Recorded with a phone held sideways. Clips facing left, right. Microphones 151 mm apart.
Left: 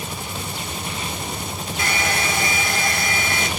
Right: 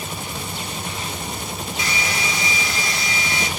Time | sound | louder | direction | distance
1.8 | a hair dryer | left 4 dB | 50° left (ahead or behind) | 1.3 m